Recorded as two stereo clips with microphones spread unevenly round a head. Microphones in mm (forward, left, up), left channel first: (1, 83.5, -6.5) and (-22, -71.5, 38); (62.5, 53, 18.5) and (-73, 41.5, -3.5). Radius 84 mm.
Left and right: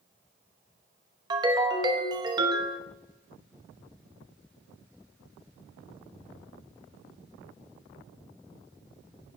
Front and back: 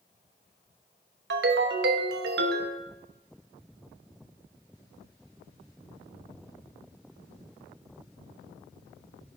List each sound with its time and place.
1.3 s a ringtone: 160° right, 0.9 m